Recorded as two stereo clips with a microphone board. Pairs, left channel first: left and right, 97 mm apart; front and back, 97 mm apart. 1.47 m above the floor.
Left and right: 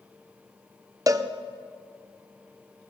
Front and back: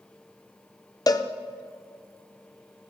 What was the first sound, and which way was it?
A cowbell, 40° right.